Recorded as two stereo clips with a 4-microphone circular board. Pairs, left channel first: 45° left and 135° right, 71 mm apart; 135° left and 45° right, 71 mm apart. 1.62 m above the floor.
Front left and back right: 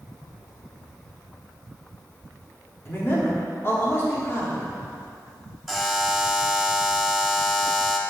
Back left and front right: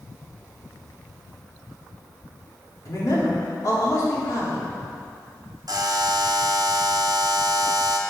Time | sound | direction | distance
2.9 | a man speaking | 100° left | 3.5 m
5.7 | a buzzer | 45° right | 1.1 m